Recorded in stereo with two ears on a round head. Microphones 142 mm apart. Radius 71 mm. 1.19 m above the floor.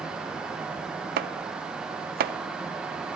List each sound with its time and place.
1.2 s chopping: 65° right (ahead or behind), 0.5 m